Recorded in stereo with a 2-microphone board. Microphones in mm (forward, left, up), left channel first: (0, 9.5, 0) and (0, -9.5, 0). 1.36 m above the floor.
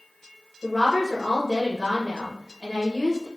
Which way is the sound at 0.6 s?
5° right (ahead or behind).